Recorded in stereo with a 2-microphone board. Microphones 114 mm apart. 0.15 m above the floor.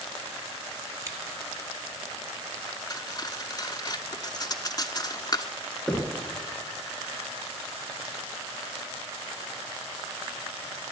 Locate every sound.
1.1 s scissors: 25° right (ahead or behind), 2 m
2.9 s cutlery clinking: 35° left (ahead or behind), 0.9 m
5.9 s knocking: centre (ahead or behind), 1.5 m